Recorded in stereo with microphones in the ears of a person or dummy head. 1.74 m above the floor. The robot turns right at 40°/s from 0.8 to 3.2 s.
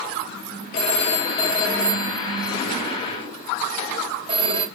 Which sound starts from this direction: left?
A phone ringing, at 0.7 s.